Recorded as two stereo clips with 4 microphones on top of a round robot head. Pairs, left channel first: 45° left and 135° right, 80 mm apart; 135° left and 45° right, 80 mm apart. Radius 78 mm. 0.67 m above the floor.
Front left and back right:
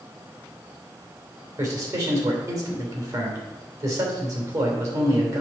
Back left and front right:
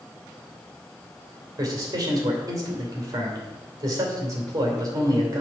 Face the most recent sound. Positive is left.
turn(degrees=-90)